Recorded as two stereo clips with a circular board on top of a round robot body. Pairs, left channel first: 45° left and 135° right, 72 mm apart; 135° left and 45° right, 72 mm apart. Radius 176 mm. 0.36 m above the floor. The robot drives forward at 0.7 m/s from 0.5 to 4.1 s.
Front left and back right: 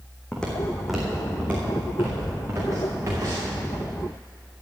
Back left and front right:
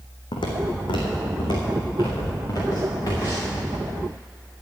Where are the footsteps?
120° left, 2.0 m; by 3.6 s straight behind, 5 m.